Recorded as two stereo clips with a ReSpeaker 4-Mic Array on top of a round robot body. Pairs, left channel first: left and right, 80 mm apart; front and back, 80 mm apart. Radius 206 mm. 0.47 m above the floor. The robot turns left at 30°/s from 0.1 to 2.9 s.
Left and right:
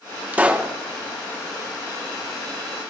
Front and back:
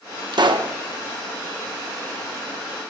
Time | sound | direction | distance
0.3 | a pop | 160° right | 1.3 m